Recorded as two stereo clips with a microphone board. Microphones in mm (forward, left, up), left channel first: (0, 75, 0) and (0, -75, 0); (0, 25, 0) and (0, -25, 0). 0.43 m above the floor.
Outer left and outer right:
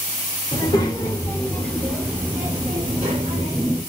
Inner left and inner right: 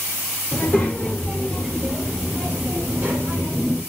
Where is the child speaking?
30° left (ahead or behind), 1.2 m; by 3.8 s 40° right (ahead or behind), 1.3 m.